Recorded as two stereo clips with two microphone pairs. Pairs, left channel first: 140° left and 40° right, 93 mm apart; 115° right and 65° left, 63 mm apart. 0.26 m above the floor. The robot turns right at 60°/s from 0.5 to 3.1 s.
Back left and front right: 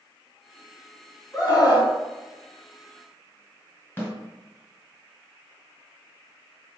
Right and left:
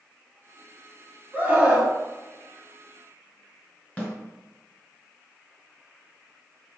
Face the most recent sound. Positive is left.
turn(degrees=-165)